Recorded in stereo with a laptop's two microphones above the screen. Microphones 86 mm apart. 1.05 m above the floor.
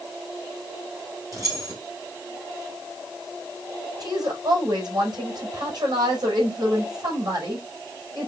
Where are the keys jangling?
40° right (ahead or behind), 3.5 m.